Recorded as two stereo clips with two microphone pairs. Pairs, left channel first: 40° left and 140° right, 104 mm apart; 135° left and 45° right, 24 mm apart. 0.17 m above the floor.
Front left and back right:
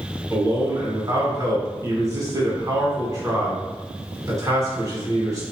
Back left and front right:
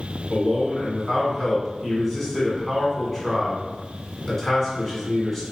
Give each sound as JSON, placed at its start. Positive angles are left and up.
{"t": 0.3, "sound": "a man speaking", "azimuth_deg": -140, "distance_m": 1.7}